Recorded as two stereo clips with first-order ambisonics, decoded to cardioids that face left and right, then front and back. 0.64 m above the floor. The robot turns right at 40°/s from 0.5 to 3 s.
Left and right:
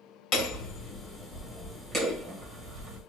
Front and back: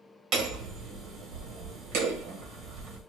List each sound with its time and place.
0.3 s hammering: 135° left, 1.7 m; by 3.0 s 125° right, 1.7 m